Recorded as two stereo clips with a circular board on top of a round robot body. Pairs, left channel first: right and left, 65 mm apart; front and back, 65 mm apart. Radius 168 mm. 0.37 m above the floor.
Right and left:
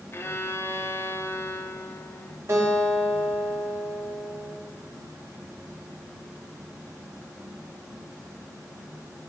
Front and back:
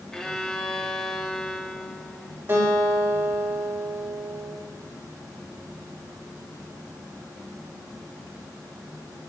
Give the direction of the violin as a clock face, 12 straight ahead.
3 o'clock.